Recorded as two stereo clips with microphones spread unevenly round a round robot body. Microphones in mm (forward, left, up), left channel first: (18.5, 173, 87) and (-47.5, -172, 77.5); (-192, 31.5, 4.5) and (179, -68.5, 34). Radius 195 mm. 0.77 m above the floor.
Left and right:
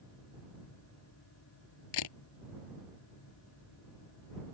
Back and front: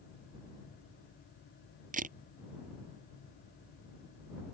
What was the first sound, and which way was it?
A camera shutter, 55° left.